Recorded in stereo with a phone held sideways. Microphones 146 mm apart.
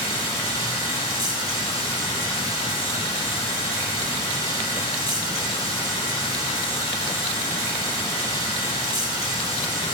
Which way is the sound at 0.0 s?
40° left (ahead or behind).